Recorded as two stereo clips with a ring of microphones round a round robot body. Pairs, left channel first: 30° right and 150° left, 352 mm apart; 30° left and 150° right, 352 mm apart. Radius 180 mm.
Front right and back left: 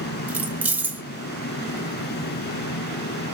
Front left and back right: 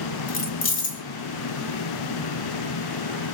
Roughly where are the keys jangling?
Ahead left.